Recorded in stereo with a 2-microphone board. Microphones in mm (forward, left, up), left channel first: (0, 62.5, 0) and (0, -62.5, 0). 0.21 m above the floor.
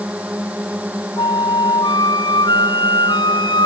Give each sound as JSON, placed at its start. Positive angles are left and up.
{"t": 0.0, "sound": "a drone", "side_deg": -10}
{"t": 1.2, "sound": "a flute", "side_deg": 40}